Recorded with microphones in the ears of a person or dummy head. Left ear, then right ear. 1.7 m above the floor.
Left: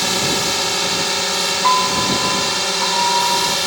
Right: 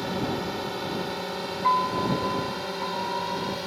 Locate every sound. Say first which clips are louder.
0.0 s a drone: left 11 dB; 65° left (ahead or behind); by 3.7 s 55° left (ahead or behind)
1.6 s a piano: left 6 dB; 30° left (ahead or behind)